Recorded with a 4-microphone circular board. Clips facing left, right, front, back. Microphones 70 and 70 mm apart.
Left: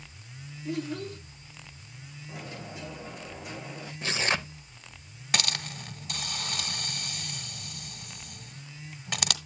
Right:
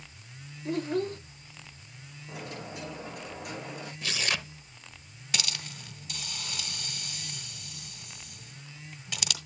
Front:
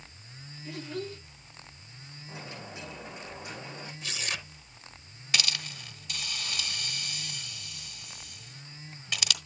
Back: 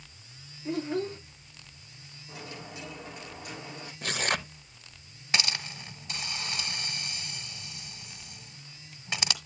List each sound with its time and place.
0.7 s a child speaking: 130° right, 0.7 m
2.3 s a dropped coin: 65° right, 8 m
4.0 s tearing paper: 145° left, 0.6 m
5.3 s a hiss: 120° left, 1.5 m